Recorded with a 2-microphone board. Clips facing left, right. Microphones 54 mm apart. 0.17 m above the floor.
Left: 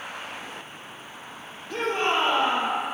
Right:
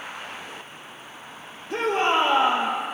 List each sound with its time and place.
1.7 s a shout: 15° right (ahead or behind), 4 m